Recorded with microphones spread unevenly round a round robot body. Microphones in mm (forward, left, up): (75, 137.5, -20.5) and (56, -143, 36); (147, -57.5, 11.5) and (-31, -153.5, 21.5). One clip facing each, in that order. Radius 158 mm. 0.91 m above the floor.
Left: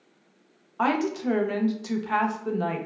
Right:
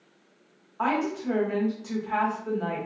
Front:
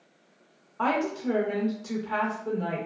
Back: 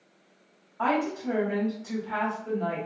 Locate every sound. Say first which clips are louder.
0.8 s a woman speaking: left 2 dB, even; 85° left, 0.6 m